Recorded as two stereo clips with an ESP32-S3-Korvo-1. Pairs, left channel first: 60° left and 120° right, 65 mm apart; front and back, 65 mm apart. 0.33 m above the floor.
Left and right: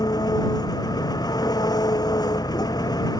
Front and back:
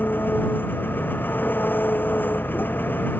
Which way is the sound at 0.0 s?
60° left.